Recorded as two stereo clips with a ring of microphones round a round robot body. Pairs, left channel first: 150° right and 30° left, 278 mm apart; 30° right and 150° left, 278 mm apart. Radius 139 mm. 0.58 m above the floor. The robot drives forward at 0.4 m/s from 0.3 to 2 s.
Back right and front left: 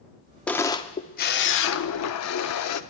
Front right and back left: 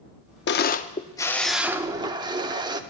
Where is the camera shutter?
65° right, 0.6 m; by 2.8 s 135° right, 0.7 m.